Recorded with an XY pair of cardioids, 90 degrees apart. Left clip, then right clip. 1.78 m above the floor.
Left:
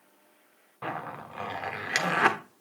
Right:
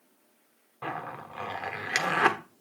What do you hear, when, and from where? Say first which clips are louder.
0.8 s a zipper: even; straight ahead, 1.2 m